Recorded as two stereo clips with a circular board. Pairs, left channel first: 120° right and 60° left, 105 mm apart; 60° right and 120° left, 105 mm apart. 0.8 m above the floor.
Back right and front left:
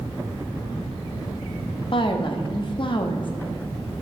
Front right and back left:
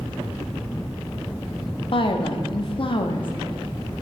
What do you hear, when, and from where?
1.9 s a woman speaking: 90° right, 0.7 m